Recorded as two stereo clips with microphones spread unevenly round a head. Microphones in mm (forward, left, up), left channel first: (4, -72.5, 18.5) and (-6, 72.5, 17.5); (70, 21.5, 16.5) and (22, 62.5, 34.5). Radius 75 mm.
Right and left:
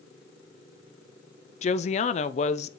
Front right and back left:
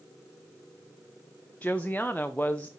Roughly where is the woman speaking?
Behind right.